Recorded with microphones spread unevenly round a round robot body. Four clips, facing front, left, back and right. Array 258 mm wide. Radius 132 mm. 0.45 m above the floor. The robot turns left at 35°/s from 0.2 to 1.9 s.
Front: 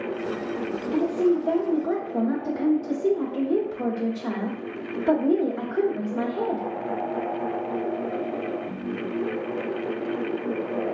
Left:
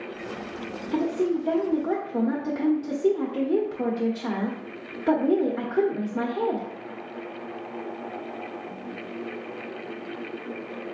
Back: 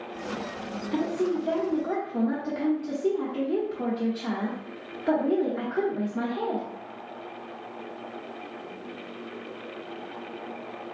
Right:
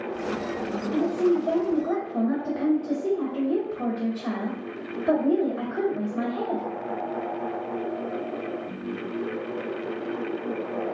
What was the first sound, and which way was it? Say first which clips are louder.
A woman speaking: right 2 dB, front 5 dB; 110° left.